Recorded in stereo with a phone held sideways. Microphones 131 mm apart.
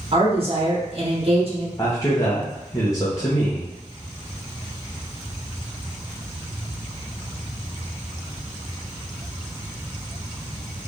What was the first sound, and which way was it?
A woman speaking, 50° right (ahead or behind).